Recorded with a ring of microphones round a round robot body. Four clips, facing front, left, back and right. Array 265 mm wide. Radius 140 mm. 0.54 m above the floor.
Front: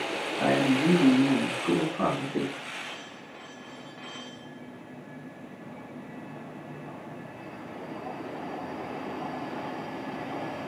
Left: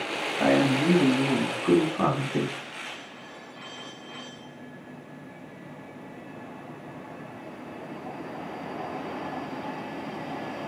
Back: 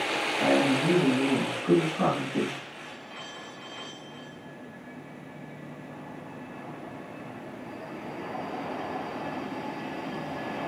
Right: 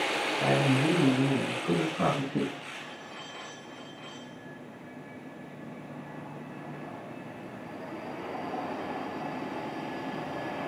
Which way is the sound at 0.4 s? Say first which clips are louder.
Left 5 dB, even; 85° left.